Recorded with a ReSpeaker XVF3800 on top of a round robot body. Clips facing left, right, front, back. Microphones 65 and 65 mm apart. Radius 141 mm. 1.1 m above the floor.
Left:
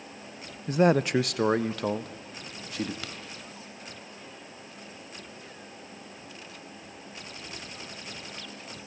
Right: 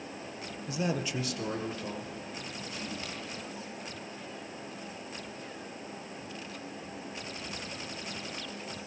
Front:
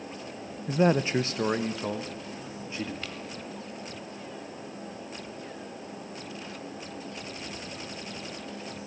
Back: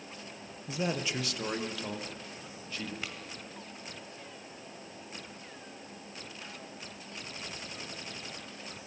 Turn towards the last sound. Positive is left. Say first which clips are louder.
# left 1 dB, front 2 dB
turn(degrees=95)